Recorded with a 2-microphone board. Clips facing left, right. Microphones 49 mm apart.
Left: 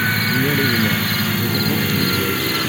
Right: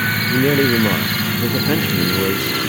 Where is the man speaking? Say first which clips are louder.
Right 6 dB; 80° right.